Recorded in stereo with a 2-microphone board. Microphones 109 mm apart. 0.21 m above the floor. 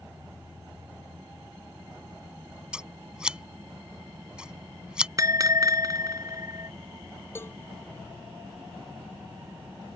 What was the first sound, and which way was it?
Scissors, 10° right (ahead or behind).